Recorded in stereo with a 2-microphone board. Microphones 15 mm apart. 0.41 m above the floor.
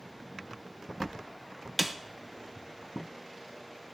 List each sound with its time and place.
1.8 s a snare drum: 5° right (ahead or behind), 0.8 m